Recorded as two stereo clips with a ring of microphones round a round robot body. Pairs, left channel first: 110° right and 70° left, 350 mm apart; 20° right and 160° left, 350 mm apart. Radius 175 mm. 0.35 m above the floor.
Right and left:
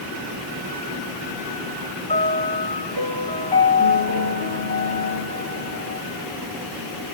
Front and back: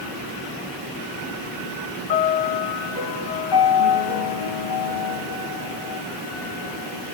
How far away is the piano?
About 2.5 m.